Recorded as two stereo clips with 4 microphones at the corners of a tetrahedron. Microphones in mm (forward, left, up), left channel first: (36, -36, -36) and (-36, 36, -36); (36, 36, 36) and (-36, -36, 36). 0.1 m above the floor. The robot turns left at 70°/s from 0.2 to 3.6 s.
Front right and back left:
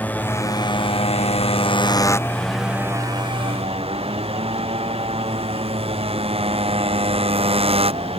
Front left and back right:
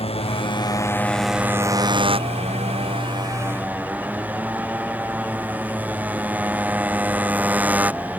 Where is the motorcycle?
30° left; by 8.2 s 150° left.